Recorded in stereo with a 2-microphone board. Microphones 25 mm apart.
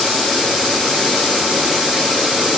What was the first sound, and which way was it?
Only background noise.